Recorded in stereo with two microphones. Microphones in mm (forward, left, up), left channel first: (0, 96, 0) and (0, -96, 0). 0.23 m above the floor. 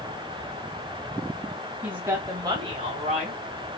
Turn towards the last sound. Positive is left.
turn(degrees=-40)  # may be behind; listen again after turning